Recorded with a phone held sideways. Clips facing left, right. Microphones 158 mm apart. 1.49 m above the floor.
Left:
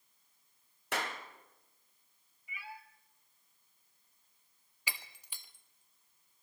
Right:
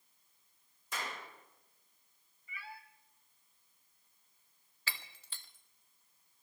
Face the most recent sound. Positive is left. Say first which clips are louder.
# left 1 dB
turn(degrees=15)  # may be behind; listen again after turning